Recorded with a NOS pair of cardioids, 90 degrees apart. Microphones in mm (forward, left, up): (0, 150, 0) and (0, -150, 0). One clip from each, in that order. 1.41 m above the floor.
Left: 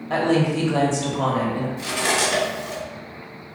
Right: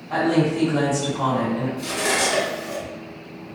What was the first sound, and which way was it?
A woman speaking, 40° left.